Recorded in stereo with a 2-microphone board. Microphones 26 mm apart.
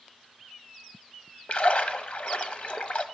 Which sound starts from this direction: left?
A splash, at 1.5 s.